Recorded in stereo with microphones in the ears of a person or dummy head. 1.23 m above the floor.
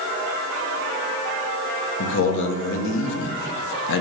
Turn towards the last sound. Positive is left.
turn(degrees=65)  # may be behind; listen again after turning